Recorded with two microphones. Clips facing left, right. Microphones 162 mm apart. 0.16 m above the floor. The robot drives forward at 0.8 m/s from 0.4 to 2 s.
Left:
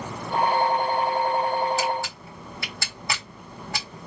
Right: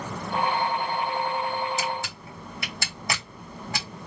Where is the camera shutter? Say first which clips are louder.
Left 4 dB; 20° right (ahead or behind), 3 m.